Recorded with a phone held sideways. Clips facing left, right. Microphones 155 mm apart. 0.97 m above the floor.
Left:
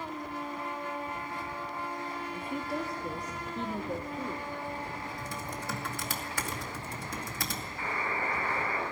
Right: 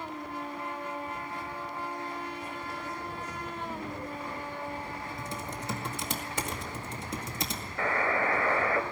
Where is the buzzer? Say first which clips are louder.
Right 7 dB; 80° right, 1.9 m.